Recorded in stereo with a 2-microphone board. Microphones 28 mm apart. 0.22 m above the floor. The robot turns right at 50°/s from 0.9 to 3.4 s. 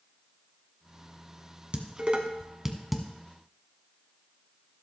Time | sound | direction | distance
1.7 | dishes clattering | 45° right (ahead or behind) | 1.3 m